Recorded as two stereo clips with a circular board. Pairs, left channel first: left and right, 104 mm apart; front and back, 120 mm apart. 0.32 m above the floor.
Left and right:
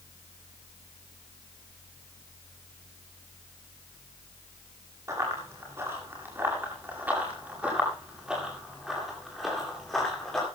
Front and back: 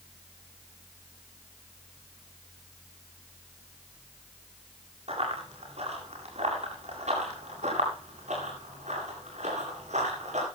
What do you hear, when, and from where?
5.1 s running footsteps: 150° right, 9 m; by 10.4 s 175° left, 9.5 m